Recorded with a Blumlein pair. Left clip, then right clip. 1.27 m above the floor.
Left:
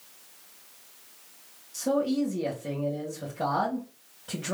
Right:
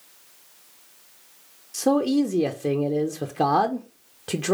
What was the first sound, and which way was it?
A man speaking, 55° right.